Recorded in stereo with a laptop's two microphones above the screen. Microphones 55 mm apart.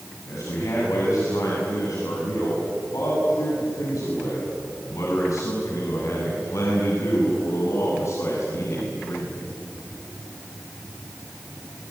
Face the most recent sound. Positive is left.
turn(degrees=55)  # may be behind; listen again after turning